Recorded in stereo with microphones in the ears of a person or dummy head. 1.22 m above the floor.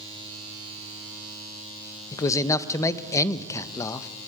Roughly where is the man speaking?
Centre.